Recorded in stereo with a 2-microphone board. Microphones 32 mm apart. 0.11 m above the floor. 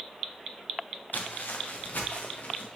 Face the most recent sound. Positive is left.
turn(degrees=80)